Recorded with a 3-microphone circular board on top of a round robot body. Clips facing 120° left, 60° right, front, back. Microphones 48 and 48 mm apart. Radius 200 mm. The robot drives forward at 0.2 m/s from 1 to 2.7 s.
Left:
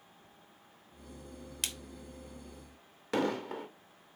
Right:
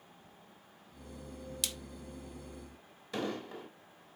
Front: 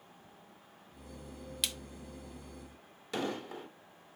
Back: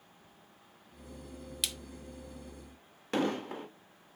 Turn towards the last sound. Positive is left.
turn(degrees=135)